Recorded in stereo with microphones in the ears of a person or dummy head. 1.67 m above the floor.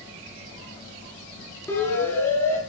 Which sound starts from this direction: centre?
A siren, at 1.7 s.